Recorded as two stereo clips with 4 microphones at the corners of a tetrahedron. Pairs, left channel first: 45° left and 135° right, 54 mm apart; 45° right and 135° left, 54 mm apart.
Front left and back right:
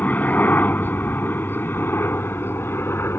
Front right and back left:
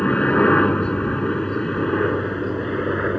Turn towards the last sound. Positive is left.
turn(degrees=45)